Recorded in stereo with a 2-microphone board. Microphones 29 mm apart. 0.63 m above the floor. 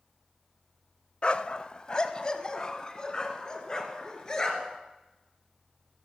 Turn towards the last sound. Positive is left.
turn(degrees=25)  # may be behind; listen again after turning